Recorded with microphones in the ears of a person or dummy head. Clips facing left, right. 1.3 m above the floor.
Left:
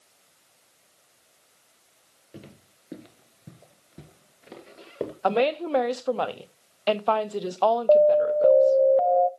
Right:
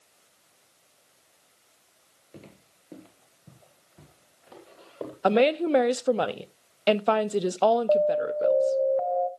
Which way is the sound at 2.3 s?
10° left (ahead or behind).